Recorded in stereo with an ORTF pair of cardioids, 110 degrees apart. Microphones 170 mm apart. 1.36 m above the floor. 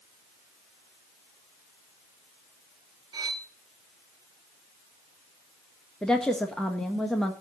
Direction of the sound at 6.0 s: 5° left.